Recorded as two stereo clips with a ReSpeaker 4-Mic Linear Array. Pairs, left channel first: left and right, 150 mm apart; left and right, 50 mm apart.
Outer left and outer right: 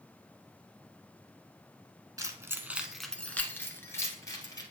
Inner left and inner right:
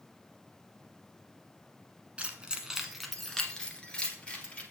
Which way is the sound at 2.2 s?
25° right (ahead or behind).